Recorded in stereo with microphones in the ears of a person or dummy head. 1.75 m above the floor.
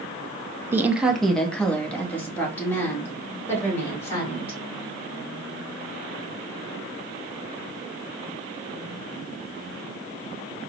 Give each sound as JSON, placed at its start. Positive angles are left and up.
{"t": 0.7, "sound": "a woman speaking", "side_deg": -10, "distance_m": 0.5}